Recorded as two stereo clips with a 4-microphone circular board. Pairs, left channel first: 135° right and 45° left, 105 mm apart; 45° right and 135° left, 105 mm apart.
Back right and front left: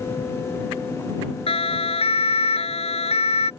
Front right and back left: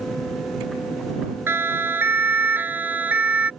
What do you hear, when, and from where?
1.5 s a siren: 155° right; by 3.5 s 150° right